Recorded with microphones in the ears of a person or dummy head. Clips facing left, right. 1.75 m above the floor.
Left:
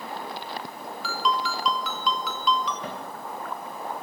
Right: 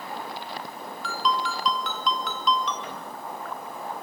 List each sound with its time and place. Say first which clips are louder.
1.0 s a ringtone: even; centre (ahead or behind), 2 m
2.8 s a cupboard door: left 3 dB; 30° left (ahead or behind), 3 m